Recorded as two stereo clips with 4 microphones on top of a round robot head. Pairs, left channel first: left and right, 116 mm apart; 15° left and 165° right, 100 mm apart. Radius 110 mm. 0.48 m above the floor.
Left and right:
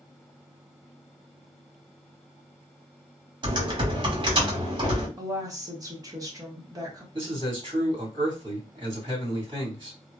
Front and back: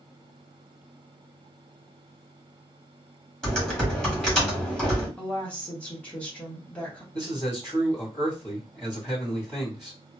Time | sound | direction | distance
3.4 | typing on a keyboard | 70° right | 1.6 m
5.2 | a woman speaking | 55° right | 1.3 m
7.1 | a man speaking | 55° right | 1.9 m